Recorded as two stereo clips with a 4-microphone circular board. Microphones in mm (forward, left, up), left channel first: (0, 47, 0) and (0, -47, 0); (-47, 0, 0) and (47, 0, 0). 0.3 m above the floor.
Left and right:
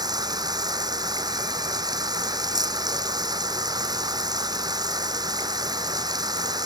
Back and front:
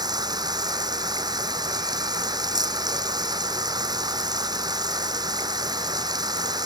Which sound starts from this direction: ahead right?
Running water, at 0.0 s.